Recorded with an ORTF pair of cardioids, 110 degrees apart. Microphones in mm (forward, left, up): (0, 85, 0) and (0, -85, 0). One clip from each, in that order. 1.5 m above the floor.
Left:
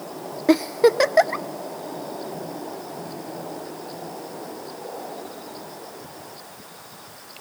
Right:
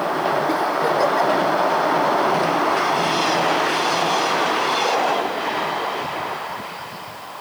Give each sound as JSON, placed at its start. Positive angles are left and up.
{"t": 0.5, "sound": "a giggle", "azimuth_deg": 45, "distance_m": 0.5}